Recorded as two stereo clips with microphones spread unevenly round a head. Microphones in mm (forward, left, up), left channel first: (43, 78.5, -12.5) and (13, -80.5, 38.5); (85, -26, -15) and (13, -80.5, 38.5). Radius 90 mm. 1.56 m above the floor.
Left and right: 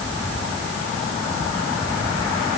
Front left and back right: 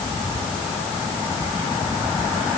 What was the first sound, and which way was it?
Only background noise.